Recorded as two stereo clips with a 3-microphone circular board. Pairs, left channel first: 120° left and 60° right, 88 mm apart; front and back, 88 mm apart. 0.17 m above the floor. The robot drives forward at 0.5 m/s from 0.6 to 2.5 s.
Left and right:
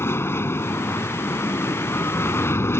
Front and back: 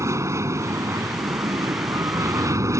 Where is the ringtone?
No ringtone in this recording.